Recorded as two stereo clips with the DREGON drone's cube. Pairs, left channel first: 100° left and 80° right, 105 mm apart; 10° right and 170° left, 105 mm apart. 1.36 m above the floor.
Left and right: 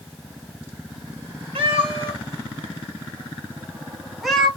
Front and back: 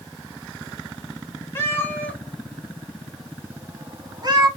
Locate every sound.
1.6 s a cat meowing: 75° right, 1.4 m; by 4.5 s 175° right, 1.1 m